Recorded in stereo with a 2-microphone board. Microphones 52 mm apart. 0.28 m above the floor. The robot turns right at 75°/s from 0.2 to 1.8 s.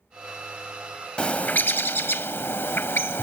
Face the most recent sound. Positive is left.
turn(degrees=70)